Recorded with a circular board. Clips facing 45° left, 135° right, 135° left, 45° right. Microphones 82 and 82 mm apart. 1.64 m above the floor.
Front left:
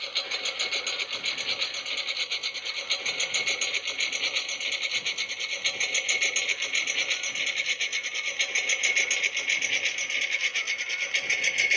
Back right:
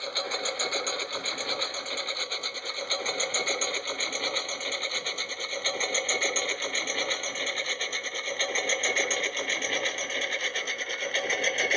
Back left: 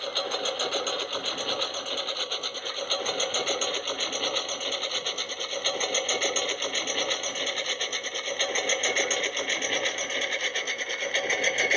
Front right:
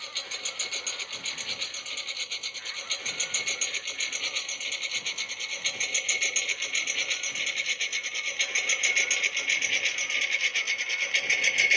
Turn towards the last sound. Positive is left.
turn(degrees=180)